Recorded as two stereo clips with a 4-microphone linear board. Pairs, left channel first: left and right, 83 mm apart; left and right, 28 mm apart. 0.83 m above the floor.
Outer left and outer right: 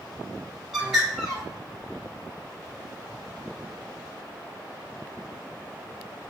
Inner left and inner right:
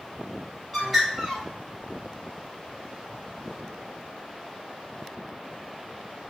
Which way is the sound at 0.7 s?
5° right (ahead or behind).